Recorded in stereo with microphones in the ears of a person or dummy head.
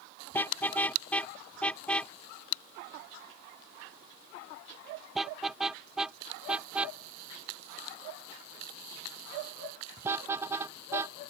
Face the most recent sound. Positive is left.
turn(degrees=-15)  # may be behind; listen again after turning